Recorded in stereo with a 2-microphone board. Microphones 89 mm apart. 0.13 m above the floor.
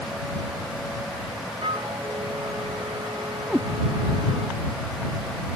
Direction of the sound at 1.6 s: 85° right.